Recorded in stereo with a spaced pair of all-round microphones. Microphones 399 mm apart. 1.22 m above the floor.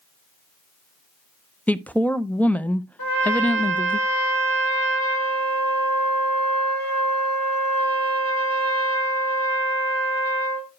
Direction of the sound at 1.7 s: 5° left (ahead or behind).